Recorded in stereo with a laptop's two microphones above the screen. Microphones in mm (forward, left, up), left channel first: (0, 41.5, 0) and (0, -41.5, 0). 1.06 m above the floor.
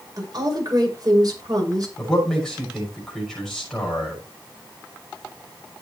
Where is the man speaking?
5° left (ahead or behind), 6 m.